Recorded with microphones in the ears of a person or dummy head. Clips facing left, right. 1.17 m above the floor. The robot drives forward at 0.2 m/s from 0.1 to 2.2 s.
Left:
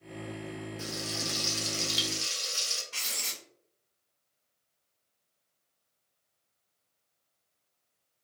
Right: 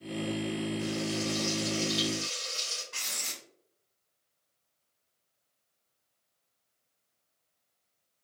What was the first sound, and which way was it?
Frying, 60° left (ahead or behind).